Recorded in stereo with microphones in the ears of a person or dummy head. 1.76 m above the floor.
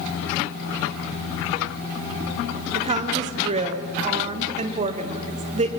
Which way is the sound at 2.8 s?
35° right (ahead or behind).